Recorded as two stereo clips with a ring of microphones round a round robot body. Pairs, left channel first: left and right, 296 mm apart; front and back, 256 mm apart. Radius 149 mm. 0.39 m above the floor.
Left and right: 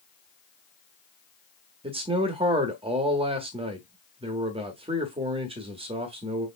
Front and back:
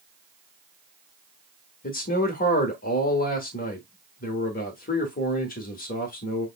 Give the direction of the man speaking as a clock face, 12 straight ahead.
1 o'clock.